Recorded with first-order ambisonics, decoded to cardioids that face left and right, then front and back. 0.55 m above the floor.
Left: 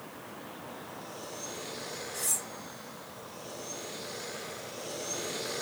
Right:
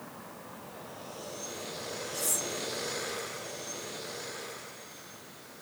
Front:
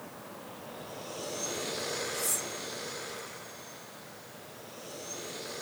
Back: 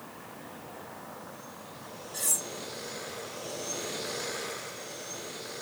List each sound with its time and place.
2.1 s cutlery clinking: straight behind, 4 m